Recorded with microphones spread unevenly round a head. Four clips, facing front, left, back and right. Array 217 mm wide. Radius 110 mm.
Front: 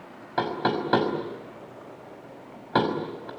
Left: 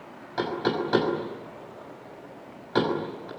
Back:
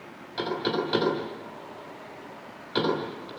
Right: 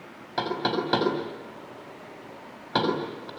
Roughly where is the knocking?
Ahead.